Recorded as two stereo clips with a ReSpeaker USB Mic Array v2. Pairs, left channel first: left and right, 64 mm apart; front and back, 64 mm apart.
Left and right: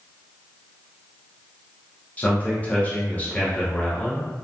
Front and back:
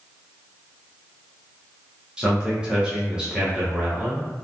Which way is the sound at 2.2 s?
125° left.